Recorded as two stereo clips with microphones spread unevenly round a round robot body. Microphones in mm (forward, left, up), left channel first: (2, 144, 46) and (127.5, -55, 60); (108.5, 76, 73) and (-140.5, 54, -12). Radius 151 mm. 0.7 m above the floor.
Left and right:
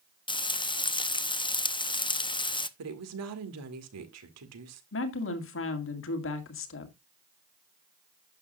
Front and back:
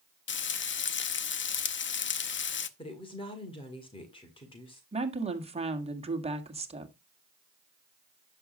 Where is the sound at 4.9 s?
135° left, 2 m.